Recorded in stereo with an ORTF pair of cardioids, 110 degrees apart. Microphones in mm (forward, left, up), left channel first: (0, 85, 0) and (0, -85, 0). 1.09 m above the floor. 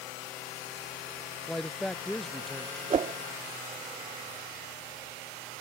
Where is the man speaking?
5° left.